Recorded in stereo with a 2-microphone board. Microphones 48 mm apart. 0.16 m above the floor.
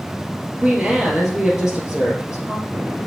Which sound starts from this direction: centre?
A woman speaking, at 0.6 s.